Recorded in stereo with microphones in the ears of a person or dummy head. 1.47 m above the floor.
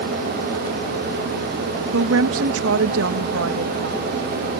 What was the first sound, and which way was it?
A woman speaking, 85° right.